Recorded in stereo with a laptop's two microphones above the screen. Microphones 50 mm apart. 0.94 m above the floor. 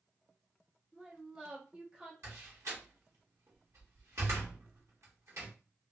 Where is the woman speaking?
20° right (ahead or behind), 0.8 m.